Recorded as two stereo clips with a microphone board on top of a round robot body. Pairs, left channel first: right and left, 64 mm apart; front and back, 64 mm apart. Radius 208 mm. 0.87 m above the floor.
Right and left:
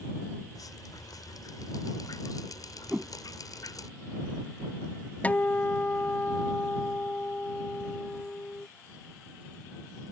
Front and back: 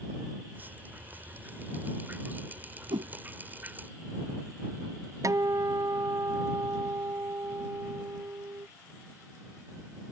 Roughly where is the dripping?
Behind right.